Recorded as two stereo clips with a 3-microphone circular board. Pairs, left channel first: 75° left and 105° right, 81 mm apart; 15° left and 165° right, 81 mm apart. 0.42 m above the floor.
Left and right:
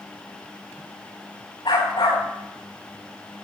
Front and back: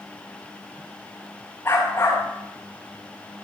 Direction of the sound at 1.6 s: 70° left.